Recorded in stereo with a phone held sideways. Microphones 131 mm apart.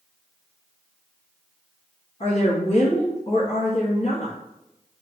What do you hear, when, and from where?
2.2 s a woman speaking: 45° left (ahead or behind), 1.0 m